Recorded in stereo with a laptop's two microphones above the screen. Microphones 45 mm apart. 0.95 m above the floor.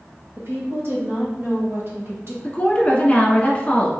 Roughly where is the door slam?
No door slam in this recording.